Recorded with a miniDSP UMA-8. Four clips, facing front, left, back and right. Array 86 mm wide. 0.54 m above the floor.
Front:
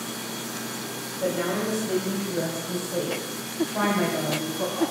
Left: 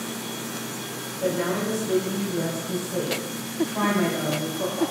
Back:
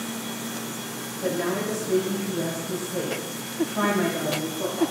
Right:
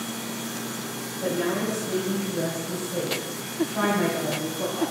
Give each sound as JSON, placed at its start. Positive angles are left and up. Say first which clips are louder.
{"t": 1.2, "sound": "a woman speaking", "louder": "left 1 dB, even", "azimuth_deg": 15, "distance_m": 3.5}